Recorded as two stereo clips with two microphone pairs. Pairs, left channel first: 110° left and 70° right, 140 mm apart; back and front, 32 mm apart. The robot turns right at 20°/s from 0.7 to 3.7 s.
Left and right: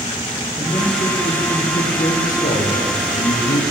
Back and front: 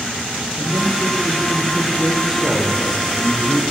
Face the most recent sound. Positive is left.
turn(degrees=115)